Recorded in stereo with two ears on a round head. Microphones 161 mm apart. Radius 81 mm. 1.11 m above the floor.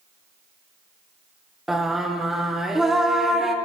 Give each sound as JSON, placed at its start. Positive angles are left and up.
{"t": 1.7, "sound": "singing", "side_deg": 0, "distance_m": 0.7}